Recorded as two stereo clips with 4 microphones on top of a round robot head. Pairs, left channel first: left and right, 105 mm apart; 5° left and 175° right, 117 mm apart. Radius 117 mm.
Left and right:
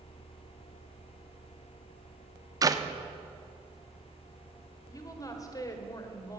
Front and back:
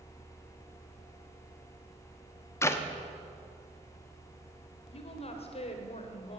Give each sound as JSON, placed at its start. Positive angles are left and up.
{"t": 2.6, "sound": "a clap", "azimuth_deg": -55, "distance_m": 1.1}
{"t": 4.9, "sound": "a woman speaking", "azimuth_deg": 35, "distance_m": 2.0}